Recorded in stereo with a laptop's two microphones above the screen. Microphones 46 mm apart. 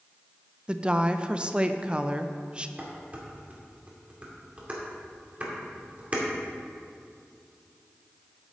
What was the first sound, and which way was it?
A woman speaking, 20° right (ahead or behind).